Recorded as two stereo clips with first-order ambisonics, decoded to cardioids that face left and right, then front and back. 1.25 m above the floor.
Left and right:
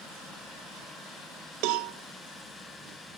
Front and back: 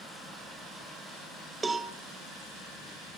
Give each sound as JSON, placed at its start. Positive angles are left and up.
{"t": 1.6, "sound": "a cowbell", "azimuth_deg": -105, "distance_m": 0.7}